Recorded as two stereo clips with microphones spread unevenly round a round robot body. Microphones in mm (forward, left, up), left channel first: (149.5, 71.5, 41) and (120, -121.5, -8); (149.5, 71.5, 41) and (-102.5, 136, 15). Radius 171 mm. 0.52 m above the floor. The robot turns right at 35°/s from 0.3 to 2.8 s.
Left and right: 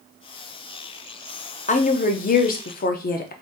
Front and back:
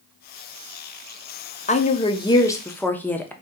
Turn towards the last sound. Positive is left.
turn(degrees=75)